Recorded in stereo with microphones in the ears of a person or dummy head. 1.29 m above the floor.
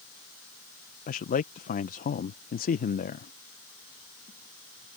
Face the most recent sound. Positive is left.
turn(degrees=35)  # may be behind; listen again after turning